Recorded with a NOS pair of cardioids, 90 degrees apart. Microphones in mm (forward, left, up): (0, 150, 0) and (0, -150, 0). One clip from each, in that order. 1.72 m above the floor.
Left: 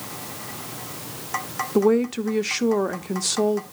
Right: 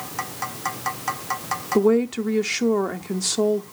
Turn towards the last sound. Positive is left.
turn(degrees=0)